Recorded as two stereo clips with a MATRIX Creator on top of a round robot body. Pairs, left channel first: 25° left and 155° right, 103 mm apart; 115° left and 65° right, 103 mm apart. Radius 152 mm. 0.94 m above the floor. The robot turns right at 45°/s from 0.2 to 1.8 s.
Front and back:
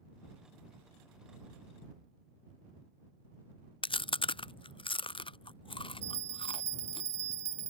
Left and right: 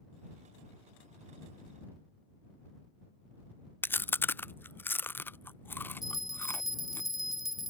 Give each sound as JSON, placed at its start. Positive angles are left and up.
{"t": 3.8, "sound": "chewing", "azimuth_deg": 45}
{"t": 6.0, "sound": "a bell", "azimuth_deg": -155}